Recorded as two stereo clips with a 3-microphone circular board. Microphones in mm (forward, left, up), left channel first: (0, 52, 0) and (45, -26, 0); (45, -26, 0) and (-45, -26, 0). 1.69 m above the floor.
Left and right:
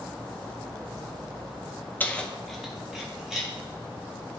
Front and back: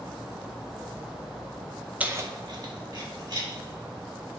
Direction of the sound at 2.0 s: 135° left.